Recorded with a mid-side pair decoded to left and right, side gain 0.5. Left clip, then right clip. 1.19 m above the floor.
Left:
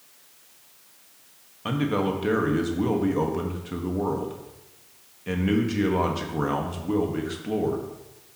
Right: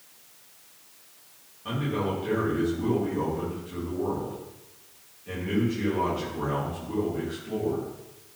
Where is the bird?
No bird in this recording.